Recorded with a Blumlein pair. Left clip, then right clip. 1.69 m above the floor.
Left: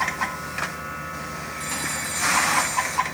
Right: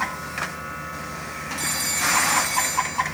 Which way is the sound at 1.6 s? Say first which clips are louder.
Right 4 dB; 55° right.